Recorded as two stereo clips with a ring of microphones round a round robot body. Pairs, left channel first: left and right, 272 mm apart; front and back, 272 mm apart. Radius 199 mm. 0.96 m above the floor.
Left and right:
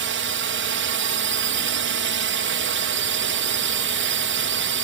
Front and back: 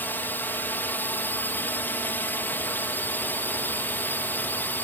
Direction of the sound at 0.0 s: 80° right.